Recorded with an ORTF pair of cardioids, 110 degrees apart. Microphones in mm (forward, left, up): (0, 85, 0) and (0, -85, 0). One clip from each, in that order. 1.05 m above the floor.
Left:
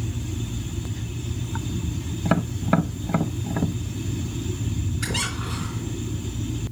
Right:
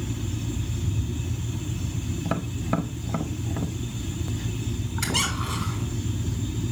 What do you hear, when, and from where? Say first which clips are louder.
2.2 s tapping: left 6 dB; 25° left, 0.6 m
5.0 s a squeak: right 2 dB; 45° right, 3.5 m